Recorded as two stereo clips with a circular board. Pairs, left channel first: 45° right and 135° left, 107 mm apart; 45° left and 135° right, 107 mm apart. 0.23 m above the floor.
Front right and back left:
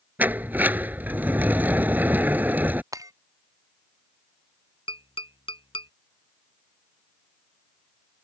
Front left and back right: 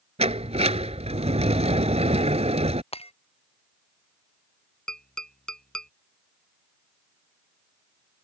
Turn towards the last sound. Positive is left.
turn(degrees=-35)